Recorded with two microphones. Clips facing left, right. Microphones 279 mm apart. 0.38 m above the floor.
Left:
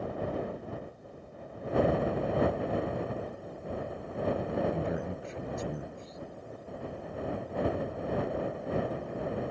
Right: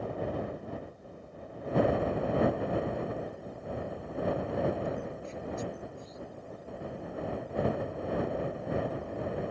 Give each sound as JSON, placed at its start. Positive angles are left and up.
{"t": 4.7, "sound": "a man speaking", "side_deg": 75}